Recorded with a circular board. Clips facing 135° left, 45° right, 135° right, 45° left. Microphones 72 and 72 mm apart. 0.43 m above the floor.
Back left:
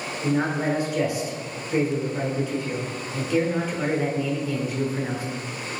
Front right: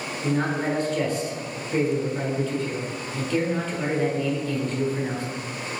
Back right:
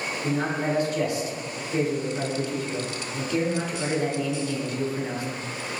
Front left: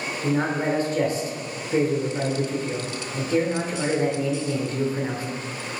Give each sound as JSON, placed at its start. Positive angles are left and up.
{"t": 0.2, "sound": "a man speaking", "azimuth_deg": 65, "distance_m": 1.3}